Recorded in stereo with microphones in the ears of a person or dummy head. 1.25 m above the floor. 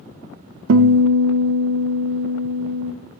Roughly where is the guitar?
Right.